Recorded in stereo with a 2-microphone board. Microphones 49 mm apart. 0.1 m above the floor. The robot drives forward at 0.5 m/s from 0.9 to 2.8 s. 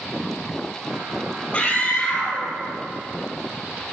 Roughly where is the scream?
Left.